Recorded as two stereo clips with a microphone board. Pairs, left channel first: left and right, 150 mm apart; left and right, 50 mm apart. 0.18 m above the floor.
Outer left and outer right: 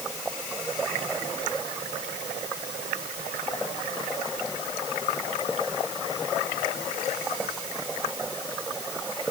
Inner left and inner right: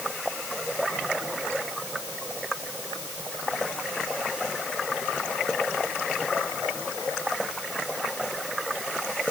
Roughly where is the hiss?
No hiss in this recording.